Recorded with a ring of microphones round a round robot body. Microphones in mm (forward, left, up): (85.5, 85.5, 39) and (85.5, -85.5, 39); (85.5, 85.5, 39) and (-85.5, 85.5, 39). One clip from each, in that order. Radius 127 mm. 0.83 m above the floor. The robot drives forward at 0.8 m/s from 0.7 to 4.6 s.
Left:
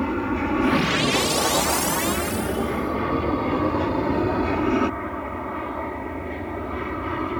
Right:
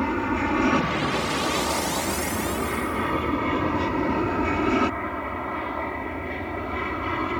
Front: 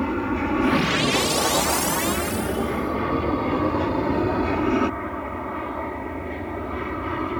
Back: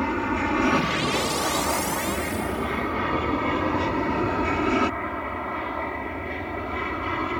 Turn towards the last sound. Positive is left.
turn(degrees=-145)